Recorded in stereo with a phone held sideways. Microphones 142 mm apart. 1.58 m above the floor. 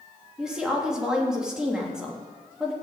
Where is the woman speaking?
5° right (ahead or behind), 3 m.